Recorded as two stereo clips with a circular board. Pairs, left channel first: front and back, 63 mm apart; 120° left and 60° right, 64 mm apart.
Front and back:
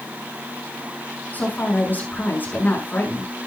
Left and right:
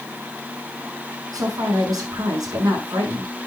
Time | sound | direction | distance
1.3 | a woman speaking | 60° right | 6 m